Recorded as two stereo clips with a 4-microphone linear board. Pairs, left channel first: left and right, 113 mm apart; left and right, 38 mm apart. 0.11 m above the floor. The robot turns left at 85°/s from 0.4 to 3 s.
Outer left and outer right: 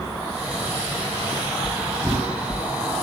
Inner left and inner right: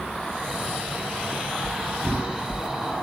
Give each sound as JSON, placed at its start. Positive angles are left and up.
{"t": 1.6, "sound": "knocking", "side_deg": 35, "distance_m": 1.6}